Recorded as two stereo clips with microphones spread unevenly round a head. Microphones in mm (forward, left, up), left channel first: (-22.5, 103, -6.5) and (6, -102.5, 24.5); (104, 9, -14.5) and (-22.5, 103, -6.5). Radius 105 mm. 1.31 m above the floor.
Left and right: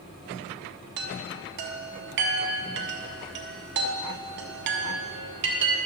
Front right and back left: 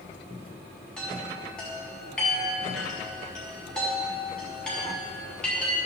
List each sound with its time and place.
1.0 s a chime: 120° right, 0.8 m